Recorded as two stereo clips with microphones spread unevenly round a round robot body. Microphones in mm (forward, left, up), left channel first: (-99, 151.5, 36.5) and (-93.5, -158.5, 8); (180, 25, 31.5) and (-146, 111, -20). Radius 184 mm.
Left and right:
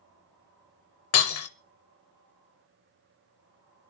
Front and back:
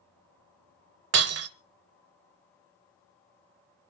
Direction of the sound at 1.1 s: 120° left.